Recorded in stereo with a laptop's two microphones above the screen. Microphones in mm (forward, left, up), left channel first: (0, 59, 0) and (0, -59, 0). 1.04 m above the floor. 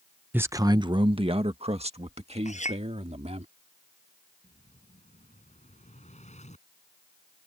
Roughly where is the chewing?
I don't hear chewing.